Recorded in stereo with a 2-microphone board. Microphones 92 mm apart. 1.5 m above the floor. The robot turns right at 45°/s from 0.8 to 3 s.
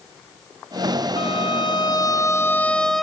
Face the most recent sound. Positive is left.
turn(degrees=180)